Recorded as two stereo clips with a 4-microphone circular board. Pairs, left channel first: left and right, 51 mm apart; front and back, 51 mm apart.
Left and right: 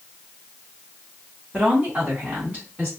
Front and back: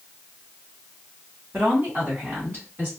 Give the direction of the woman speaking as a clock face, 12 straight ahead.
5 o'clock.